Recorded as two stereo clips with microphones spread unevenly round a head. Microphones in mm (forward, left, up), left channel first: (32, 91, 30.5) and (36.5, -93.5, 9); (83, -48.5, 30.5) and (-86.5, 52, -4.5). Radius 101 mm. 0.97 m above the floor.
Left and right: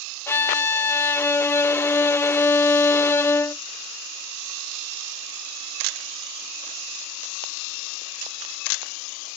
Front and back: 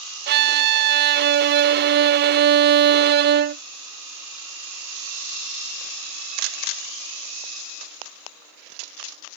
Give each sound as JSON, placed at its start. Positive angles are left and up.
{"t": 0.3, "sound": "a violin", "azimuth_deg": 175}